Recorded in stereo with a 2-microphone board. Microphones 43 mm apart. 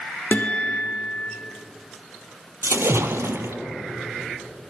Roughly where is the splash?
Right.